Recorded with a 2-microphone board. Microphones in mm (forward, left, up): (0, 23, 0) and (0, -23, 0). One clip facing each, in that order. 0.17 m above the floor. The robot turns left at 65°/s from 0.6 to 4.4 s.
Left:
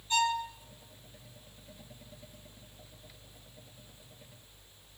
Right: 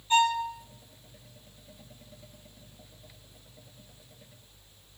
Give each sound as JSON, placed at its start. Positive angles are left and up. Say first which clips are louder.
{"t": 0.1, "sound": "a violin", "louder": "right 5 dB", "side_deg": -30, "distance_m": 1.6}